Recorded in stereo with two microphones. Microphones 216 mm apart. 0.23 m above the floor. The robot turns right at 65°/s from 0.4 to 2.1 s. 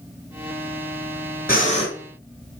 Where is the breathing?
45° left (ahead or behind), 3.5 m; by 1.9 s 20° left (ahead or behind), 3.5 m.